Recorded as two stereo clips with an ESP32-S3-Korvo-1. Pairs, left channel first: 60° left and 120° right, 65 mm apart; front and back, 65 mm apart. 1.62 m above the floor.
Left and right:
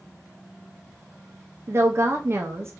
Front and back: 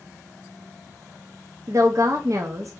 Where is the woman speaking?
155° right, 0.6 m.